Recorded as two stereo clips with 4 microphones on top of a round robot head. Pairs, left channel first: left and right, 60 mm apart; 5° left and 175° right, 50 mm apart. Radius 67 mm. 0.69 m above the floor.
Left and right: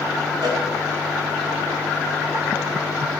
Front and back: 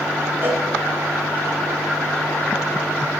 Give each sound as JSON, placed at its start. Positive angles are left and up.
{"t": 0.4, "sound": "a cowbell", "azimuth_deg": -110, "distance_m": 1.1}